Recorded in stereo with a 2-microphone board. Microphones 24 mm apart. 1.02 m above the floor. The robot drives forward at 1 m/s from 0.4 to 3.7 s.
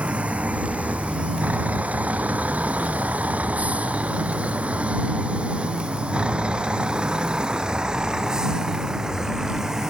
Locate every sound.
0.0 s a vehicle: 65° right (ahead or behind); by 9.9 s 15° right (ahead or behind)